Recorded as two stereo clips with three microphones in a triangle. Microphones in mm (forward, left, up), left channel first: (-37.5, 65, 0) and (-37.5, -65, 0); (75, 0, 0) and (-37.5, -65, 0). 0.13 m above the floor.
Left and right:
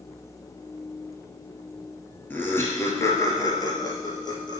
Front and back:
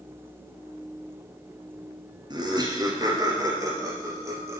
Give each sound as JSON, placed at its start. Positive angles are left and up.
{"t": 2.3, "sound": "laughter", "azimuth_deg": 160, "distance_m": 2.0}